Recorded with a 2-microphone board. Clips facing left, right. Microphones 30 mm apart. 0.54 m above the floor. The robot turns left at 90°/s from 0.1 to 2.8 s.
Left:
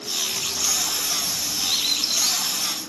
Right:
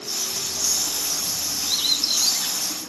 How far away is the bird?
About 1.7 m.